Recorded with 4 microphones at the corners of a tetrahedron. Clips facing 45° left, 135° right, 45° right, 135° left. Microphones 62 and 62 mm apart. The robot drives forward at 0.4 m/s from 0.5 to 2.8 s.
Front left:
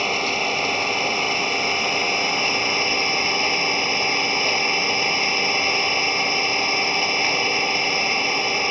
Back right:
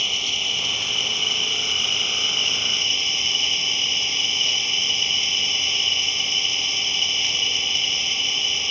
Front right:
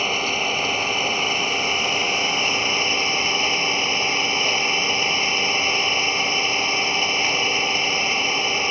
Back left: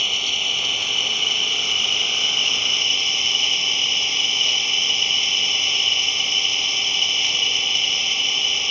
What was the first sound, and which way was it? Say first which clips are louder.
An engine running: front left 6 dB, front right 3 dB; 5° left.